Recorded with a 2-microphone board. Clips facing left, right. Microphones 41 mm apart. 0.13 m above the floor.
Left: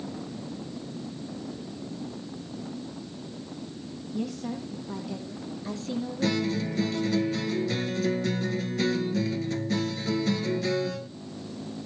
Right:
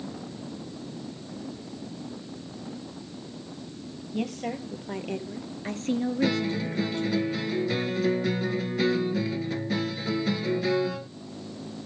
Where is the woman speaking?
60° right (ahead or behind), 3.5 m; by 7.2 s 45° right (ahead or behind), 2 m.